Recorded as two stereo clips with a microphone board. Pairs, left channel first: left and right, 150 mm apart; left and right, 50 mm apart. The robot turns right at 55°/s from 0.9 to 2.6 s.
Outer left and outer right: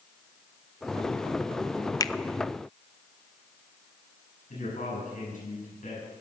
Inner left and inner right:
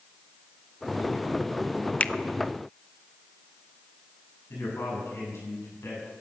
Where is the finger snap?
25° left (ahead or behind), 0.5 m; by 2.1 s 20° left (ahead or behind), 0.5 m.